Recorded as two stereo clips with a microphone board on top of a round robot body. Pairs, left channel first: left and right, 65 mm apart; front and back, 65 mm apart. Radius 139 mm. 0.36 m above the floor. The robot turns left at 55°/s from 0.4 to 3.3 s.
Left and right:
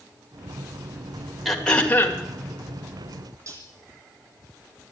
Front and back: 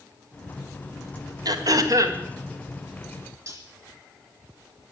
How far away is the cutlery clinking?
About 3.5 m.